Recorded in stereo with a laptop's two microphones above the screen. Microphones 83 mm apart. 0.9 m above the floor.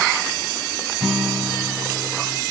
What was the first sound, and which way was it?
A guitar, 5° right (ahead or behind).